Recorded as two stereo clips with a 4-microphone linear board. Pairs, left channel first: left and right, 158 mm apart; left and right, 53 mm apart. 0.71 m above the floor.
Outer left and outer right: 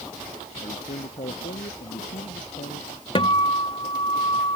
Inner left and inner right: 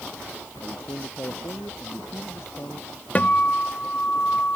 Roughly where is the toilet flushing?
I don't hear a toilet flushing.